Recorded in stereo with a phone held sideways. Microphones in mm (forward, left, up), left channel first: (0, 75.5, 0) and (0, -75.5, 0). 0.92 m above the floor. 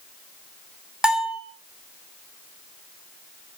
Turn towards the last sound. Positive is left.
turn(degrees=-5)  # may be behind; listen again after turning